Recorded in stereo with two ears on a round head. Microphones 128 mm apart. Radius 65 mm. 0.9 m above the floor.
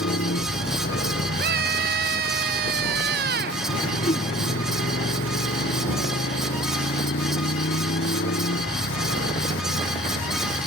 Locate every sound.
0.0 s a motorcycle: 85° left
1.4 s a scream: 65° right (ahead or behind)
4.0 s a whoosh: 45° left (ahead or behind)